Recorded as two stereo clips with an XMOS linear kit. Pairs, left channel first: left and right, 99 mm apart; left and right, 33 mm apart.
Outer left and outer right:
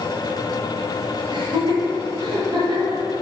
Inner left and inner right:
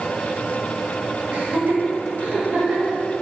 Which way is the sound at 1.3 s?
45° right (ahead or behind).